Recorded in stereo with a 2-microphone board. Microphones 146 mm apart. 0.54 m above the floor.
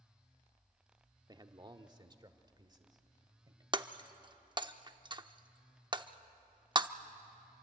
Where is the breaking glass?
30° right (ahead or behind), 0.6 m.